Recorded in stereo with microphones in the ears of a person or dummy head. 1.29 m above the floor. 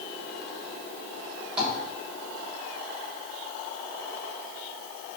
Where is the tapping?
5° right (ahead or behind), 3 m.